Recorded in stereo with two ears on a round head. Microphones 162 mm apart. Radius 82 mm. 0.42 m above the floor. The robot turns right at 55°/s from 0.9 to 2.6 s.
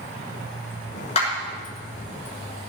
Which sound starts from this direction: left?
A clap, at 1.1 s.